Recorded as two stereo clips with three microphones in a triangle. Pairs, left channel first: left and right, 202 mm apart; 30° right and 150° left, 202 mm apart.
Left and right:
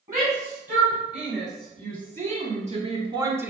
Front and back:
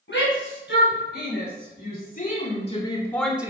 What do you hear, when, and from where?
0.1 s a shout: 45° right, 2.5 m; by 3.5 s 155° right, 0.8 m